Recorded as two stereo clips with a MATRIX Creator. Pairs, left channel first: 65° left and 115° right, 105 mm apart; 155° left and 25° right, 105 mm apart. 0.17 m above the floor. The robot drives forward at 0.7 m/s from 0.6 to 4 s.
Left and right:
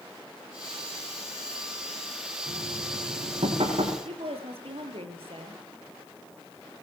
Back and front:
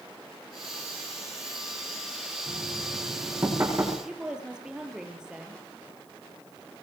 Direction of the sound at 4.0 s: 105° right.